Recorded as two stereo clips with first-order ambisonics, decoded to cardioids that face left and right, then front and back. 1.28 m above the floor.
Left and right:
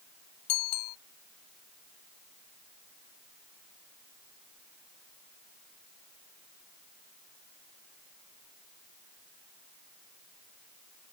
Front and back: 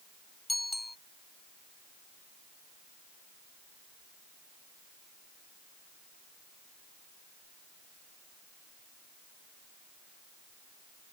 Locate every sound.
0.5 s a bicycle bell: 85° left